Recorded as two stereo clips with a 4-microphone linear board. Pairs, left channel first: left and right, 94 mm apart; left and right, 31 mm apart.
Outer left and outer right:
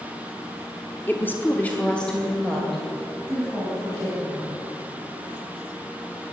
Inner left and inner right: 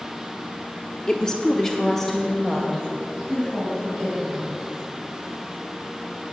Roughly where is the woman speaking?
Centre.